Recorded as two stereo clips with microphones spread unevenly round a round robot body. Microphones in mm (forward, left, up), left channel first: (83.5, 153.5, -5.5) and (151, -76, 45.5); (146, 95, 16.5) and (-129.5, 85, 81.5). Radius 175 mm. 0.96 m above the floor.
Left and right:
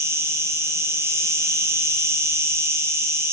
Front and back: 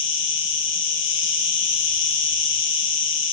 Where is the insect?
15° left, 1.2 m.